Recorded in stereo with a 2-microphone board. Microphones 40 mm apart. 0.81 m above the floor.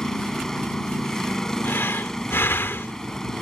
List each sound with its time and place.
0.0 s a vehicle: 10° left (ahead or behind)
1.6 s breathing: 80° left